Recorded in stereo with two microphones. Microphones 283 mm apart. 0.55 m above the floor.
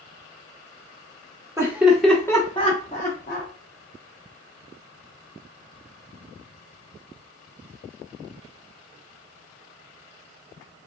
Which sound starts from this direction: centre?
Laughter, at 1.6 s.